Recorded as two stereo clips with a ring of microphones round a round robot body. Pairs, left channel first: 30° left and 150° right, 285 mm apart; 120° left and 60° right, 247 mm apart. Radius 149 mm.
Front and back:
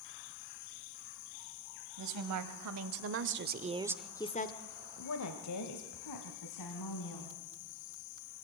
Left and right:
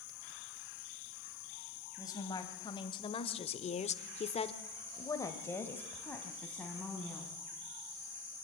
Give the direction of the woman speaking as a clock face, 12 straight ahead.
5 o'clock.